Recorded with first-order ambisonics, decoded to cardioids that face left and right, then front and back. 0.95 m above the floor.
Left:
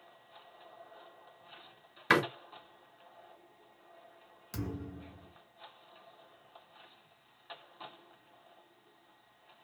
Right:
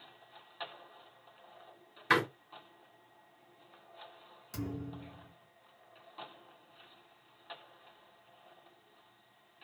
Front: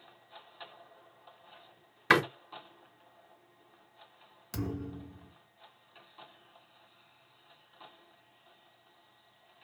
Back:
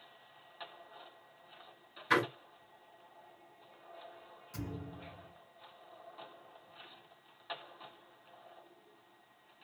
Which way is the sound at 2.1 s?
25° left.